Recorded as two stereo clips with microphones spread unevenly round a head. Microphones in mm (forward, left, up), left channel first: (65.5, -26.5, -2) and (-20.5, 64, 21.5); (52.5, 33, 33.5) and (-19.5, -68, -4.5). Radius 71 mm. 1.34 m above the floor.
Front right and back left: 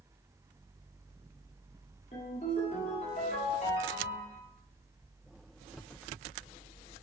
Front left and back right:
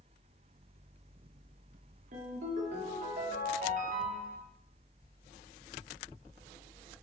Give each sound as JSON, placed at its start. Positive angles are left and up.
{"t": 2.1, "sound": "a ringtone", "azimuth_deg": -95, "distance_m": 1.8}